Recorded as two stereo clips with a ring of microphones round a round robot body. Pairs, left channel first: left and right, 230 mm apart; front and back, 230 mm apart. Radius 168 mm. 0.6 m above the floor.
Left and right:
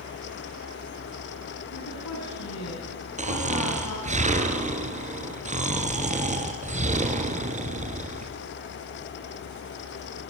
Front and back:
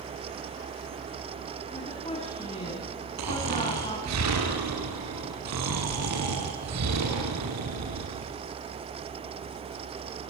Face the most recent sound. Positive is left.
turn(degrees=-150)